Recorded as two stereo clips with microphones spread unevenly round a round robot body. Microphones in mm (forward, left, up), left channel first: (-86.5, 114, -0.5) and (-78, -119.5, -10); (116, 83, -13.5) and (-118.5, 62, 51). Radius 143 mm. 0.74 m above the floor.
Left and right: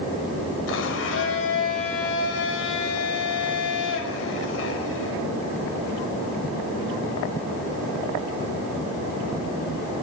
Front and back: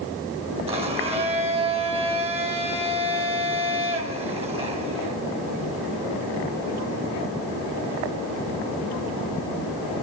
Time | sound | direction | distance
0.7 | a blender | 115° left | 4.5 m